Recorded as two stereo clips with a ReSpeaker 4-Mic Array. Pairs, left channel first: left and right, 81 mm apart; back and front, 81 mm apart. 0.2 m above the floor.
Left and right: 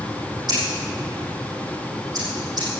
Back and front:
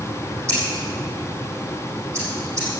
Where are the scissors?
55° right, 6 m.